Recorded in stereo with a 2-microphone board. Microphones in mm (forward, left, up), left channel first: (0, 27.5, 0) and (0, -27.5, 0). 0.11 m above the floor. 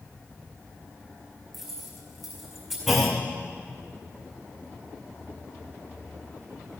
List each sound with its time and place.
1.5 s keys jangling: 5° right (ahead or behind), 5 m
2.9 s a clunk: 5° right (ahead or behind), 2 m